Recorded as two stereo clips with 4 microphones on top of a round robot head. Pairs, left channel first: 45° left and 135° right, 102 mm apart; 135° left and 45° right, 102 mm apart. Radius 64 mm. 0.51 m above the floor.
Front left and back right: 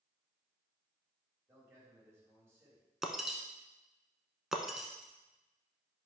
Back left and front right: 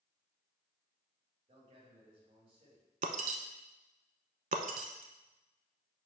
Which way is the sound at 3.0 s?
50° right.